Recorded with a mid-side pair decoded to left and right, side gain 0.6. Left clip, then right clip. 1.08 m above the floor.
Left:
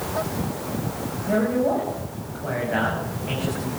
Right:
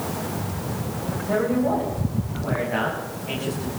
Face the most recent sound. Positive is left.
turn(degrees=15)